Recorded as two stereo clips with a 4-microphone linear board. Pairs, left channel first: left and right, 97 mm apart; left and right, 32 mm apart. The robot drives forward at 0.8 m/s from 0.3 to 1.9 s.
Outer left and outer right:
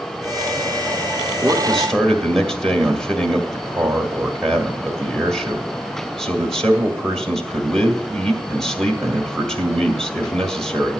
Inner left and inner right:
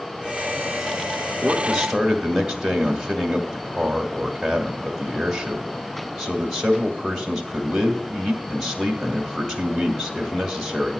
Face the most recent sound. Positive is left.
turn(degrees=5)  # may be behind; listen again after turning